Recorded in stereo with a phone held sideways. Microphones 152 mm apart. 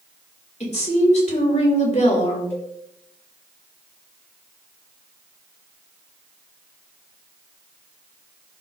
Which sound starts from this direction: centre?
A cowbell, at 2.5 s.